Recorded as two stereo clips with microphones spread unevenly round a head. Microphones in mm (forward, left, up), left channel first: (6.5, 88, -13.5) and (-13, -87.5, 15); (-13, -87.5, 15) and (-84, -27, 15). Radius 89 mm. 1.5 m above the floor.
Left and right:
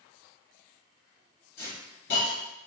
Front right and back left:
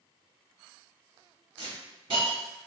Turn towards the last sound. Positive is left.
turn(degrees=105)